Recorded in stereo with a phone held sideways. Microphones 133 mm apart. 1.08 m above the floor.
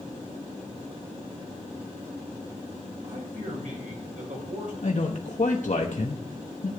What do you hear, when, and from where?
3.0 s a man speaking: 70° right (ahead or behind), 5.5 m
4.8 s a man speaking: 65° left (ahead or behind), 1.1 m